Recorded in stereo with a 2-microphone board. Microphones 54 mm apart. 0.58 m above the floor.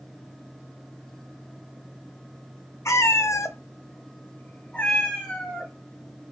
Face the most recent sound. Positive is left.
turn(degrees=15)  # may be behind; listen again after turning